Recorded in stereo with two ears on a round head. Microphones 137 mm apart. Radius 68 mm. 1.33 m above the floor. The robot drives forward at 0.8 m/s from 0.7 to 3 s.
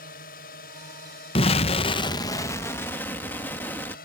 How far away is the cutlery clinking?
No cutlery clinking in this recording.